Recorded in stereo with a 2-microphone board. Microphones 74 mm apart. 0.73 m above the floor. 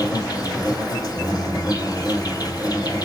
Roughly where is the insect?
Left.